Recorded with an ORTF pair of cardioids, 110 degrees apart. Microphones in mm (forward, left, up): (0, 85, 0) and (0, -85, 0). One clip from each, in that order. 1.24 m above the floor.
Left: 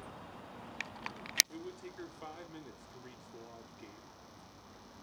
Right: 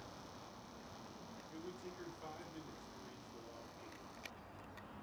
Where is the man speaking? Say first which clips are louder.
Left 4 dB; 50° left, 3 m.